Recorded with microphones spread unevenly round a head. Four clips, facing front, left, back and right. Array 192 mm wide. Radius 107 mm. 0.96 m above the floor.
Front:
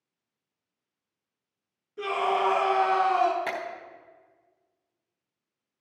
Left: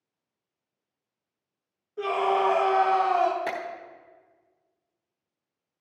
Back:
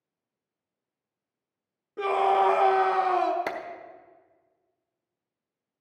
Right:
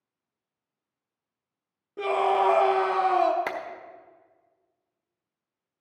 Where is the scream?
125° right, 1.4 m.